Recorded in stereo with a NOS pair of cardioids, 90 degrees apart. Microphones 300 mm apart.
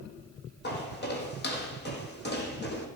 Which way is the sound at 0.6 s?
35° left.